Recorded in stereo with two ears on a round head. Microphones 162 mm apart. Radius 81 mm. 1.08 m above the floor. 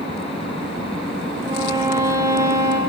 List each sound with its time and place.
1.5 s a violin: 15° right (ahead or behind), 0.5 m